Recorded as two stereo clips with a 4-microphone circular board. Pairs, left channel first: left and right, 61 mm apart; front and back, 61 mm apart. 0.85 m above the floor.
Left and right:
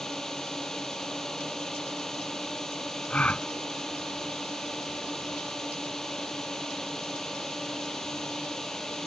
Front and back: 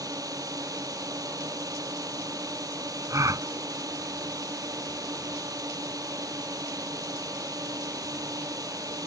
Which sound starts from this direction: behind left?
A gasp, at 3.1 s.